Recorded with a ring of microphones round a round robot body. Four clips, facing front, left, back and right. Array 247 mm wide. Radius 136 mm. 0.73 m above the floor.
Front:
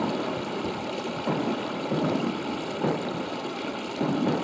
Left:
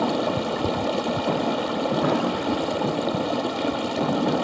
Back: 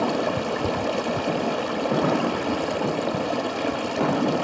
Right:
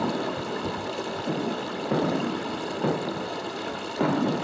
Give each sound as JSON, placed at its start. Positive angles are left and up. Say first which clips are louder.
{"t": 0.0, "sound": "running water", "louder": "left 5 dB, back 5 dB", "azimuth_deg": 120, "distance_m": 1.1}